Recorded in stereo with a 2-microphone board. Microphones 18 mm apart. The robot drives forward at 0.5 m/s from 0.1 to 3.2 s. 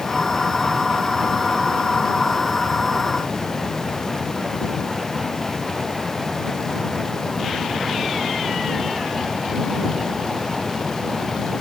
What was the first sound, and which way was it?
Only background noise.